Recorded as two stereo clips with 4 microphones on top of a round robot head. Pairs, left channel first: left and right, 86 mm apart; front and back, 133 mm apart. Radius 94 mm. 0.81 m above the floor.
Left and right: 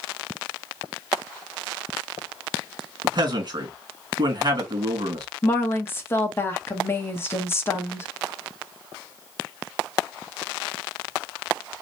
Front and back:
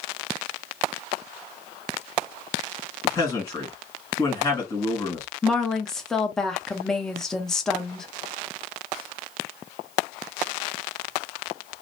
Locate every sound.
3.0 s a man speaking: 70° right, 1.7 m
5.4 s a woman speaking: 80° left, 0.8 m